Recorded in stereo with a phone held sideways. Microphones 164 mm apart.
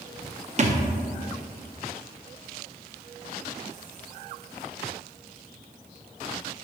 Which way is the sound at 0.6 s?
45° right (ahead or behind).